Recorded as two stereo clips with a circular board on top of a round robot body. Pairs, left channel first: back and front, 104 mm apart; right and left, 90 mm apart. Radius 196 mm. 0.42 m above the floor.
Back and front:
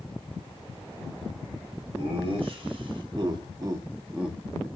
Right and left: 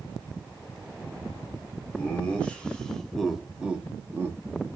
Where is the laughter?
20° right, 1.5 m; by 4.7 s 105° left, 0.8 m.